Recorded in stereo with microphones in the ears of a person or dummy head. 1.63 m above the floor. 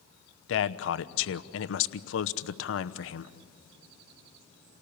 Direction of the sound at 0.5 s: 75° left (ahead or behind).